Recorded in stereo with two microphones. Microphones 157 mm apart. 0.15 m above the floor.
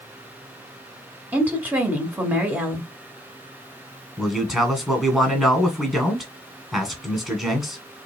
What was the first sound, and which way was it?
A woman speaking, 10° right (ahead or behind).